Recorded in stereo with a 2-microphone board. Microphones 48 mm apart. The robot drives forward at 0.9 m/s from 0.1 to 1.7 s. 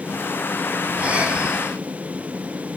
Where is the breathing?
30° right (ahead or behind), 1.8 m; by 1.8 s 20° right (ahead or behind), 2.5 m.